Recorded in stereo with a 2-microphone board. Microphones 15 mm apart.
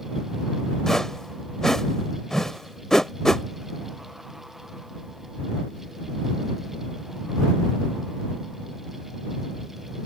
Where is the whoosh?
35° left (ahead or behind).